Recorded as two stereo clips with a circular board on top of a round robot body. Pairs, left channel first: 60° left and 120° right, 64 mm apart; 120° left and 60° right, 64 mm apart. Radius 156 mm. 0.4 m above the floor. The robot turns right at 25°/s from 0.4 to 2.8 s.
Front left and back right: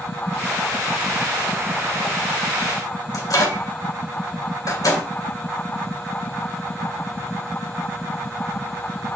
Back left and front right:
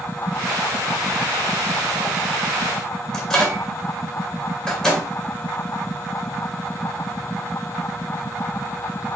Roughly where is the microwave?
Ahead left.